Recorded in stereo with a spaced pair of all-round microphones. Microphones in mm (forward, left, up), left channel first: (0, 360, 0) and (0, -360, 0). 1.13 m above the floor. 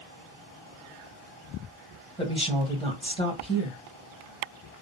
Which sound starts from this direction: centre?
A woman speaking, at 2.2 s.